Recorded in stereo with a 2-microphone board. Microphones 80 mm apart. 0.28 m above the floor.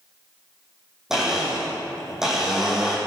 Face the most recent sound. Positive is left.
turn(degrees=-5)  # may be behind; listen again after turning